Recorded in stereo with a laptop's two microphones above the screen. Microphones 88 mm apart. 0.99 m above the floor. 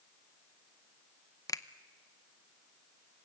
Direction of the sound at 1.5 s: 45° left (ahead or behind).